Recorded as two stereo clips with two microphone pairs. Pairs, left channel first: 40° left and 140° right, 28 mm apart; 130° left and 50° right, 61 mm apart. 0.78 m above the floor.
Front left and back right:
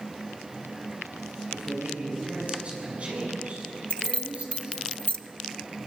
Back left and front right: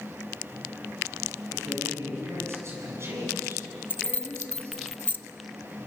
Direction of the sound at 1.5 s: 95° right.